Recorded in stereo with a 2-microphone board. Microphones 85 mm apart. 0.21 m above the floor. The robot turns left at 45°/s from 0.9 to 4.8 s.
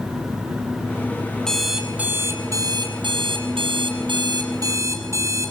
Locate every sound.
1.5 s an alarm clock: 5° left, 4.5 m; by 5.5 s 145° right, 4.5 m